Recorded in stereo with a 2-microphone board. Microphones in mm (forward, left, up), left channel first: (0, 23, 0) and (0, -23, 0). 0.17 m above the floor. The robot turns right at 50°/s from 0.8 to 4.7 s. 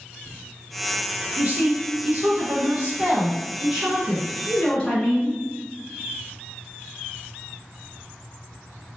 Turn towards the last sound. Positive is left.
turn(degrees=35)